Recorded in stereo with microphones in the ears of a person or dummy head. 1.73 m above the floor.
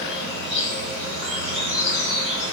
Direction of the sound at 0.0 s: 45° right (ahead or behind).